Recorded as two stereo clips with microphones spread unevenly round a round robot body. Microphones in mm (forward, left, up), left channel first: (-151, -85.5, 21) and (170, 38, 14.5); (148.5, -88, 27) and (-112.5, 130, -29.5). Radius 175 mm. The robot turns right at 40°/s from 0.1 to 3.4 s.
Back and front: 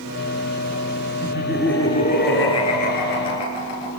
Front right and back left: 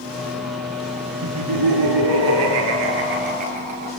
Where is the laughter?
95° left, 6.5 m; by 3.9 s 175° right, 6.5 m.